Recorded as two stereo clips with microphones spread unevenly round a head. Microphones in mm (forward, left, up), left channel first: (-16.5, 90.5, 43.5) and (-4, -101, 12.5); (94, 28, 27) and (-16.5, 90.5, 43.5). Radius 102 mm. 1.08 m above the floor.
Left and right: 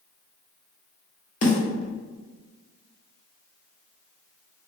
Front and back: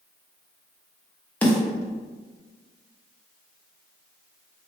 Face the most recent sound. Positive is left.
turn(degrees=50)